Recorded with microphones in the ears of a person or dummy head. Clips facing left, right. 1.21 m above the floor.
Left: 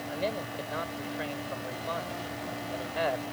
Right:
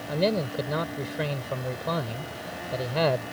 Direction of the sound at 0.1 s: 65° right (ahead or behind).